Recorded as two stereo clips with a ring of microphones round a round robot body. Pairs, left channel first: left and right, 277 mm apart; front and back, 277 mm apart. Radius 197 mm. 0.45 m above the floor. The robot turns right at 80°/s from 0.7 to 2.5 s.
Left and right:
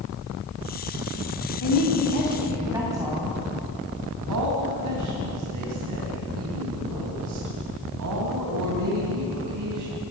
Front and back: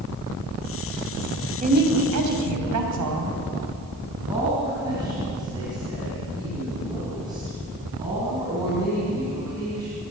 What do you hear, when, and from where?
1.6 s a woman speaking: 120° left, 3.5 m; by 3.3 s 170° right, 3.5 m
4.3 s a woman speaking: 100° right, 3 m